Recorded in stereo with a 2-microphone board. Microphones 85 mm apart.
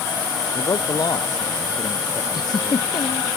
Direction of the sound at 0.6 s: 60° left (ahead or behind).